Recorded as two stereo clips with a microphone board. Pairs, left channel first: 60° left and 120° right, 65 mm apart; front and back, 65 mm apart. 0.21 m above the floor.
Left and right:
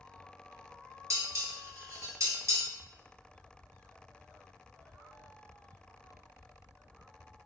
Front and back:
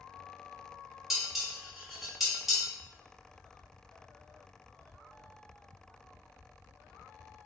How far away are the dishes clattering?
About 1.2 m.